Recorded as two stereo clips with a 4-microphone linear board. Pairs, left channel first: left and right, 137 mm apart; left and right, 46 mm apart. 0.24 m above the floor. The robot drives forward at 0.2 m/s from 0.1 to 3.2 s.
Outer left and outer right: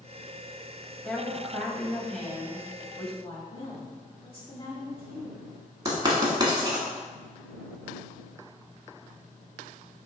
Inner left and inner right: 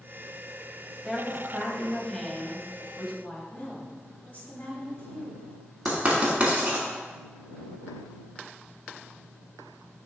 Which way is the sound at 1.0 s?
5° left (ahead or behind).